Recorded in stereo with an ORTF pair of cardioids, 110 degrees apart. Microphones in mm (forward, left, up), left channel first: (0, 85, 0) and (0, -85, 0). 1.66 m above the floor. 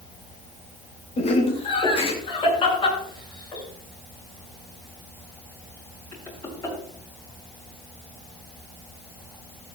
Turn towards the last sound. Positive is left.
turn(degrees=20)